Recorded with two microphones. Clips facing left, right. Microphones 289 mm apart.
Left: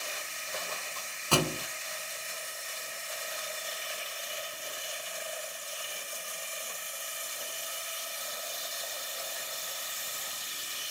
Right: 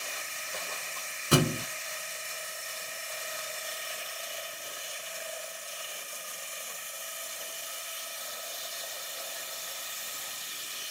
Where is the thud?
20° right (ahead or behind), 1.1 m.